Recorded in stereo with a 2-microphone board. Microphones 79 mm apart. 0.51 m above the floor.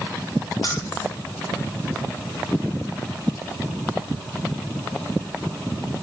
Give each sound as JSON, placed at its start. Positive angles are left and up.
{"t": 0.6, "sound": "keys jangling", "side_deg": 60, "distance_m": 7.5}